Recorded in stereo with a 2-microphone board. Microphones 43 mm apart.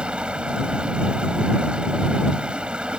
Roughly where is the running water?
Right.